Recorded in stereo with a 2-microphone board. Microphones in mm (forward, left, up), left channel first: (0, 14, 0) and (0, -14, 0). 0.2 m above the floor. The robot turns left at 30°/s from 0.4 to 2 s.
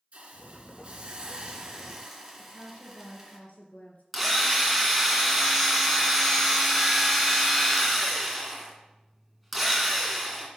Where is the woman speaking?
65° left (ahead or behind), 2.5 m.